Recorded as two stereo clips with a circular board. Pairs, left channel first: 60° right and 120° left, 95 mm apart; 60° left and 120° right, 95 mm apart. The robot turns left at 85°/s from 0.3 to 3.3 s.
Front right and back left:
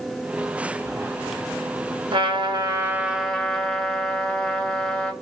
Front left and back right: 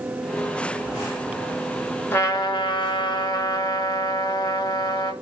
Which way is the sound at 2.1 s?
125° left.